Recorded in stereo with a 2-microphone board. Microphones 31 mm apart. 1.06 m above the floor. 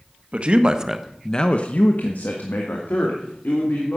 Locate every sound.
0.3 s a man speaking: 40° right (ahead or behind), 1.6 m; by 4.0 s 85° left, 4 m